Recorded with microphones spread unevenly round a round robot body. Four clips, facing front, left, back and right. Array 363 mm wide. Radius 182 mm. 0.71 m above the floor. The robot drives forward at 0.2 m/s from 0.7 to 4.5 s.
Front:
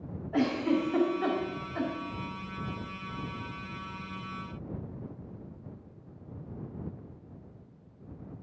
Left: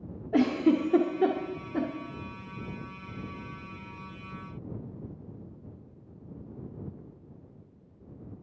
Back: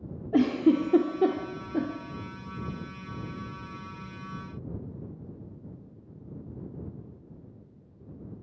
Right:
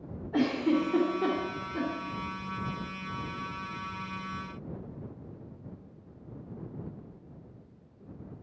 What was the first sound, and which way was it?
A giggle, 145° left.